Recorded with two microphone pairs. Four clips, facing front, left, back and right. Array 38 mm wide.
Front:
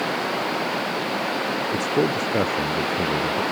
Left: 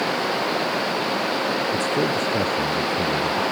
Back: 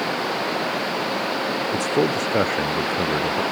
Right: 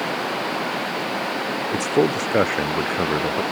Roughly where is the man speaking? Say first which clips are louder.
Right 2 dB, back 1 dB; right.